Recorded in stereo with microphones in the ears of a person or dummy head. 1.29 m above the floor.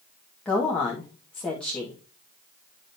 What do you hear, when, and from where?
0.5 s a woman speaking: 5° left (ahead or behind), 1.8 m